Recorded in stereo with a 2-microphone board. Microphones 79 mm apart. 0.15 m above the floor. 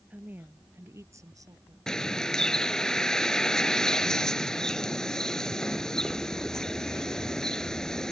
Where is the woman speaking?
20° right (ahead or behind); by 1.8 s 50° right (ahead or behind).